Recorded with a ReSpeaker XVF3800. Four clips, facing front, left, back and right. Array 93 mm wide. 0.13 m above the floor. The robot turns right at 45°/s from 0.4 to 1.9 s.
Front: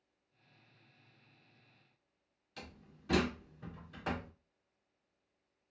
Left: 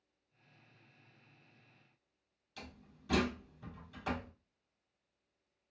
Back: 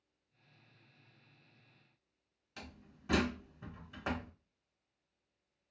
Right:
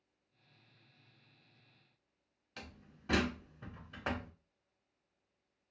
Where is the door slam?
115° right, 1.0 m.